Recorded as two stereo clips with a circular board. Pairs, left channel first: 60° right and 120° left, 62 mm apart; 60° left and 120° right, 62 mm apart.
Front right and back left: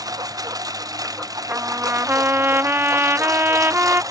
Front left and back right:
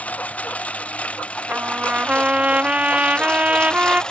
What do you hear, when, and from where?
0.0 s a lawn mower: 125° left; by 4.1 s 135° left
1.5 s a trumpet: 170° left